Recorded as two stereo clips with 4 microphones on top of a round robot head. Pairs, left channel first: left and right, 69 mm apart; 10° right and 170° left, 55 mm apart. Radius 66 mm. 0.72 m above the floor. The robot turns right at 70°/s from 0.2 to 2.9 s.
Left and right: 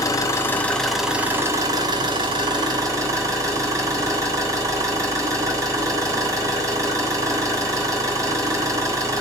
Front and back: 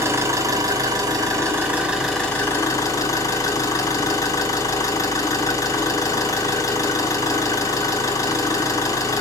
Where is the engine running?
130° left, 3 m; by 9.2 s 45° right, 3 m.